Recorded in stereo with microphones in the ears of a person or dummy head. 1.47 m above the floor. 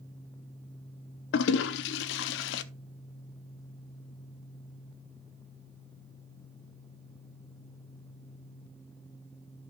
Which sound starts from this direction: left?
A toilet flushing, at 1.3 s.